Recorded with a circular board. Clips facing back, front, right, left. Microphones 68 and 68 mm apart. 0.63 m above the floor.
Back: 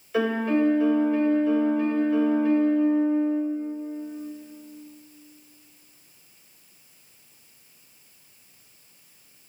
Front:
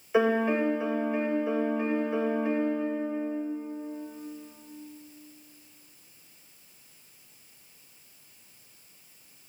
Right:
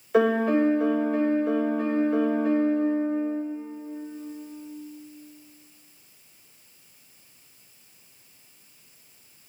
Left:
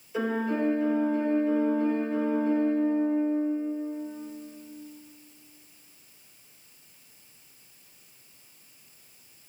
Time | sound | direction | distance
0.1 | a piano | 70° right | 2.5 m